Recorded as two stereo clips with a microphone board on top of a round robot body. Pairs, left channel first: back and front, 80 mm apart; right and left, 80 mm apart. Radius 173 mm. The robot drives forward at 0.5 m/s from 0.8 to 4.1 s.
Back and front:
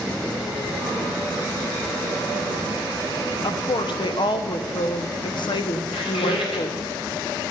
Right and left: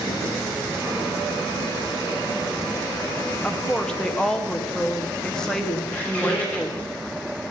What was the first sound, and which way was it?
A woman speaking, 170° right.